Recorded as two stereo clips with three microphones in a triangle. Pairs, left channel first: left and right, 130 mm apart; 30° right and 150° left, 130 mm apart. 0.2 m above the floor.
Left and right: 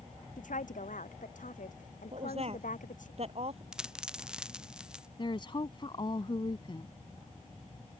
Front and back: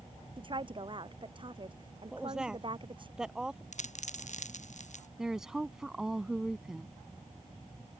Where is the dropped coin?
5° right.